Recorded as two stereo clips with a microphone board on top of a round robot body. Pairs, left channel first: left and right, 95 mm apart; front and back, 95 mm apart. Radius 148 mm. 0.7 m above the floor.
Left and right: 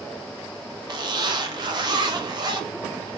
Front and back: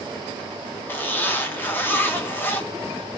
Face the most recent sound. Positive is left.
turn(degrees=-60)